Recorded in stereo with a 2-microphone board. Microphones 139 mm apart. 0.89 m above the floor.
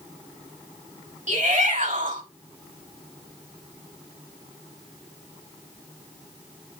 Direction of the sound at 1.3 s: 60° right (ahead or behind).